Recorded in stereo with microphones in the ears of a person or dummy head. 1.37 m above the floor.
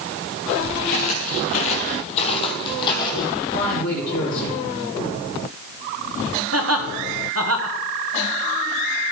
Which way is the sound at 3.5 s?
50° left (ahead or behind).